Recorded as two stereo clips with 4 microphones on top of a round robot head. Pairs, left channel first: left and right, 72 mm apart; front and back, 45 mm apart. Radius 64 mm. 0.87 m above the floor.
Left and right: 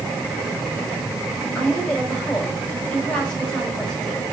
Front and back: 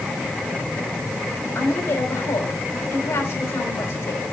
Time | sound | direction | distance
1.6 | a woman speaking | 10° left | 4.5 m